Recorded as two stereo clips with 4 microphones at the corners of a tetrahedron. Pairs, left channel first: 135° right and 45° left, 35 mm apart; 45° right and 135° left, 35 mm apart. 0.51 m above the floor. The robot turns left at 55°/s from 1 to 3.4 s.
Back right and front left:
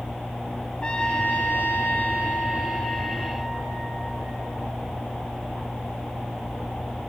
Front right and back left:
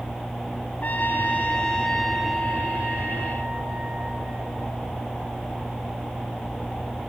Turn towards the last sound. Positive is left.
turn(degrees=150)